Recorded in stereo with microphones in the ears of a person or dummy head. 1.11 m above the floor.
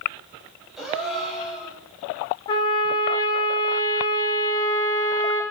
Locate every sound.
0.8 s a gasp: centre (ahead or behind), 5 m
2.5 s a trumpet: 20° left (ahead or behind), 0.8 m